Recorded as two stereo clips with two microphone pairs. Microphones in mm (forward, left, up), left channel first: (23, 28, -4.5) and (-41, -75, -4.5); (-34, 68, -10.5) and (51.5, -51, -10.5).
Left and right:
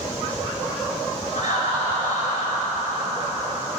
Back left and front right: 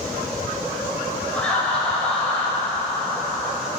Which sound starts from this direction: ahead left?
Laughter, at 1.3 s.